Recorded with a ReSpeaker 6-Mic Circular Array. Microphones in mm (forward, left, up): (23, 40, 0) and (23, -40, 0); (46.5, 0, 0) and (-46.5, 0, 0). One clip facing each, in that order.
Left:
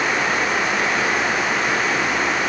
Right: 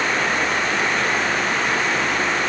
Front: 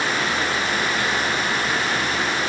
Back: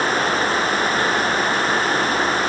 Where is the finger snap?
No finger snap in this recording.